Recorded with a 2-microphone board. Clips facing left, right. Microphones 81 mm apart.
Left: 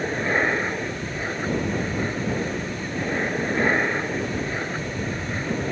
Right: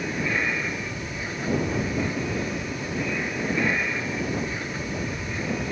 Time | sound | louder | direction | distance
0.0 | an aircraft | left 4 dB | 40° left (ahead or behind) | ?